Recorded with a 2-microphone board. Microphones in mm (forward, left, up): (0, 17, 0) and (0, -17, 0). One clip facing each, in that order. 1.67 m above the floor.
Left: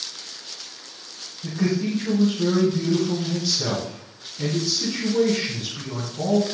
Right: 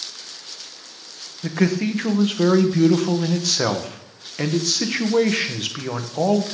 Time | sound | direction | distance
1.4 | a man speaking | 85° right | 1.6 m